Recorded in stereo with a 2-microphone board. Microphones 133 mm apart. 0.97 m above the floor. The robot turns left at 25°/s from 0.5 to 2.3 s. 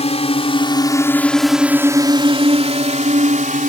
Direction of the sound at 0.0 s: 50° left (ahead or behind).